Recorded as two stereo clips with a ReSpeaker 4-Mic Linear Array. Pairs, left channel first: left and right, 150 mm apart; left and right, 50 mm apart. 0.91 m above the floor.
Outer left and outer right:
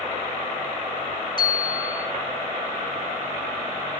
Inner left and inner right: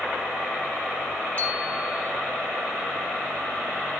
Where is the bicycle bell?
30° left (ahead or behind), 6.5 m.